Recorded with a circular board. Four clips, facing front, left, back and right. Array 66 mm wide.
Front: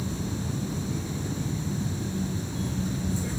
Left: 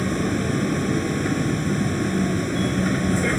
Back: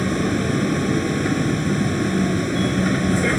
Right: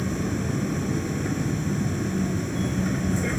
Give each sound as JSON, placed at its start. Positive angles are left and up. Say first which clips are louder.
{"t": 0.0, "sound": "a vehicle", "louder": "left 4 dB, back 12 dB", "azimuth_deg": 155}